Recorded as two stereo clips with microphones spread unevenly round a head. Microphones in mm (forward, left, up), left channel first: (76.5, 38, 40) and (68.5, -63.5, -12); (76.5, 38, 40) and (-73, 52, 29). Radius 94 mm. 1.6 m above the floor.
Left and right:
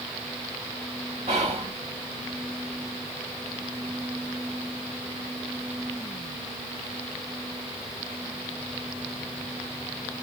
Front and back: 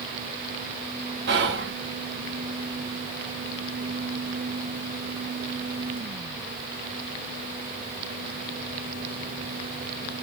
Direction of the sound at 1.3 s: 165° right.